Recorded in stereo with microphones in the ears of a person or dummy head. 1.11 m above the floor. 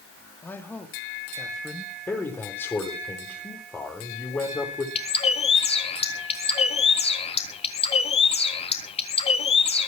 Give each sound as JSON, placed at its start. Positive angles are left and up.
{"t": 0.4, "sound": "a man speaking", "side_deg": 15, "distance_m": 2.5}
{"t": 2.1, "sound": "a man speaking", "side_deg": 15, "distance_m": 3.5}
{"t": 5.0, "sound": "a bird", "side_deg": 30, "distance_m": 1.5}